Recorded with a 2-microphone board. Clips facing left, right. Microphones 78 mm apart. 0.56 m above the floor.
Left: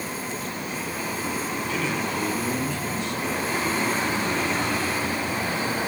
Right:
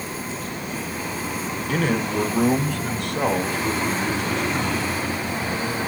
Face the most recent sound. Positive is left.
turn(degrees=-75)  # may be behind; listen again after turning